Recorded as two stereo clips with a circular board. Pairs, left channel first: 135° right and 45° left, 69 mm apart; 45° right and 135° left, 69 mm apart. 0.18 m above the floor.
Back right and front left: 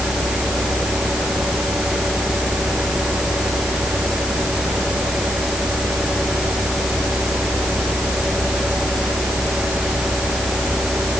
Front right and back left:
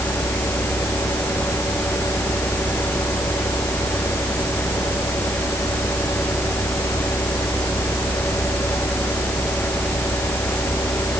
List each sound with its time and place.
Only background noise.